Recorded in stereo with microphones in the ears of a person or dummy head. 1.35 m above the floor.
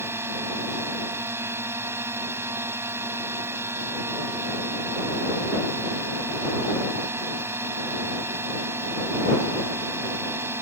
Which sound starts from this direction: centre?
A drone, at 0.0 s.